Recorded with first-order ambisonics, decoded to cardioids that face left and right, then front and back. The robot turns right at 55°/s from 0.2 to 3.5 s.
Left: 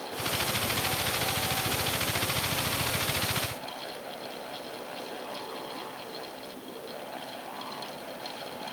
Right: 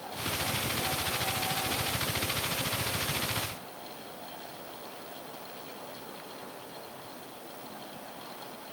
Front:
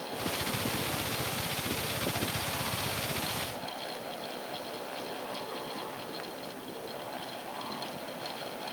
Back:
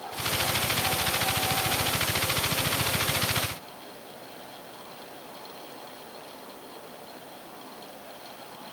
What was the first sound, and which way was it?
Only background noise.